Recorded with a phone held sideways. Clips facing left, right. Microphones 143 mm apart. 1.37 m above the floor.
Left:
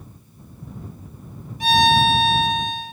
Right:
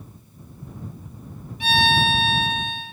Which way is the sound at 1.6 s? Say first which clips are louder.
Left 5 dB; 40° left (ahead or behind).